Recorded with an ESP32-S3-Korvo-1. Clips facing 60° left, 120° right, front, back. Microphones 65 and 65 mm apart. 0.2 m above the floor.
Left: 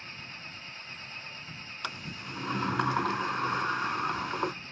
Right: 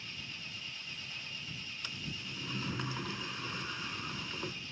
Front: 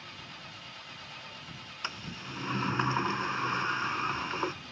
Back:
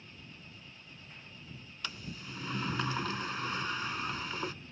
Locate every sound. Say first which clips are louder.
0.0 s an engine running: left 3 dB, front 6 dB; 10° left
1.8 s a sliding door: left 7 dB, front 3 dB; 60° left